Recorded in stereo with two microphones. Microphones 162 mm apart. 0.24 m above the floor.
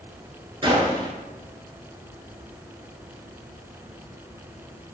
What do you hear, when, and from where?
0.6 s a gunshot: 35° right (ahead or behind), 0.6 m